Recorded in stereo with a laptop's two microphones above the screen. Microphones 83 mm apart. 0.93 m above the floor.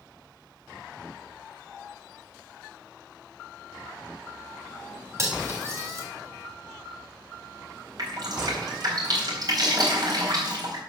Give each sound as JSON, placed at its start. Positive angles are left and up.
{"t": 5.2, "sound": "cutlery clinking", "side_deg": -35, "distance_m": 3.5}
{"t": 8.0, "sound": "dripping", "side_deg": -55, "distance_m": 4.0}